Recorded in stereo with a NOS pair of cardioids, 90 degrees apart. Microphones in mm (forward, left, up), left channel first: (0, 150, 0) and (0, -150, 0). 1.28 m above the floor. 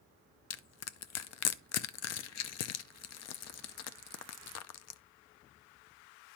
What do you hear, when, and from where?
0.5 s crushing: 60° left, 0.6 m